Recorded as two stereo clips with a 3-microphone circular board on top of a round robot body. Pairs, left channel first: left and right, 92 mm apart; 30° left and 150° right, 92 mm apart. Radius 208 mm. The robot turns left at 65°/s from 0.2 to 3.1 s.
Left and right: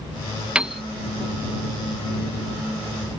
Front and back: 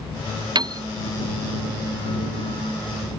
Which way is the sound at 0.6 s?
165° right.